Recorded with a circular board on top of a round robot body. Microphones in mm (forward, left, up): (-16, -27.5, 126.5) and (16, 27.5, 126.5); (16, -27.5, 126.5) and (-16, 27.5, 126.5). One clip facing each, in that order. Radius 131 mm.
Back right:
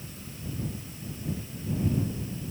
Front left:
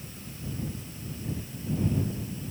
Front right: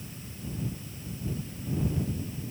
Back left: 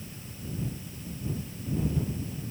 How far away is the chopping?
I don't hear chopping.